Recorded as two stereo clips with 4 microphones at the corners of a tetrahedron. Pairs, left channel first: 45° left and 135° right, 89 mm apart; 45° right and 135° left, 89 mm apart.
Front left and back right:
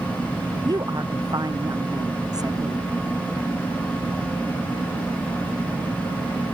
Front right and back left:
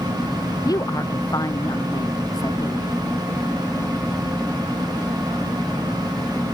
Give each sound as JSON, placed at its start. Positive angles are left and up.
{"t": 0.7, "sound": "a woman speaking", "azimuth_deg": -90}